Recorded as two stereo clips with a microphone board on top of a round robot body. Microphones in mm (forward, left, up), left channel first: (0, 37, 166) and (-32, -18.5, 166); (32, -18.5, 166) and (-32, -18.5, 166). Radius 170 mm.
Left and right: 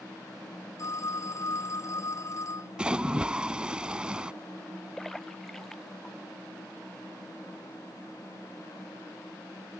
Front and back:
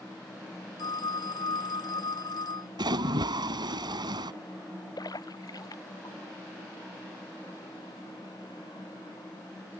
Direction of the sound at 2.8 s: 165° left.